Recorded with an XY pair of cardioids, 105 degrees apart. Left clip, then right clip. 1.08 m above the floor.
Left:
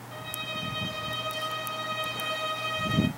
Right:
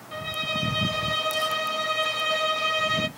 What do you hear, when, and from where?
0.1 s a violin: 45° right, 0.7 m